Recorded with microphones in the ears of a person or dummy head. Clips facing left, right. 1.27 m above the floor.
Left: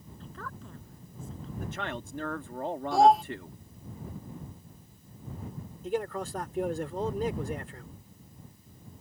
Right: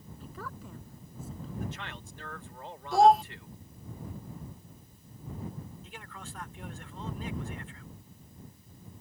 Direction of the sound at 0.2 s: 10° right (ahead or behind).